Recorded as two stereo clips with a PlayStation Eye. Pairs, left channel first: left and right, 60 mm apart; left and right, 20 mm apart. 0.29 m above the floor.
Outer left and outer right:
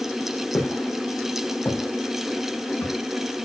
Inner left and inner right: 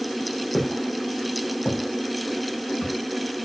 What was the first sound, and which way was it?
Footsteps, 30° left (ahead or behind).